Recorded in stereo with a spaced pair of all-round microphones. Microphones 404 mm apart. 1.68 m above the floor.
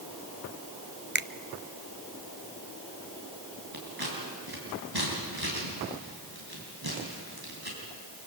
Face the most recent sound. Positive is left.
turn(degrees=-65)  # may be behind; listen again after turning